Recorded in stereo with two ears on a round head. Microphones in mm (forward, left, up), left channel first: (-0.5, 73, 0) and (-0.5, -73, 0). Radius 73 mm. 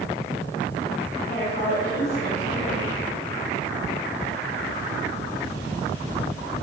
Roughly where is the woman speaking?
Left.